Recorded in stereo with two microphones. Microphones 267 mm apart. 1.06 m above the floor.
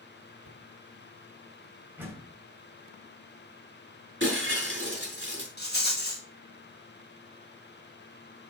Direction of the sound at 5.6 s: 40° left (ahead or behind).